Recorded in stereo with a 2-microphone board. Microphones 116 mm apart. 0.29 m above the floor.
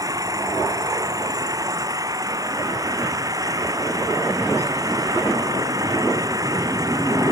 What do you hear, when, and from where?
0.0 s an engine running: 30° right (ahead or behind)